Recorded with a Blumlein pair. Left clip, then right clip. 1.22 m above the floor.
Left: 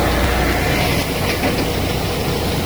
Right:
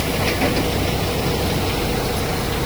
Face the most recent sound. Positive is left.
No sound to turn to.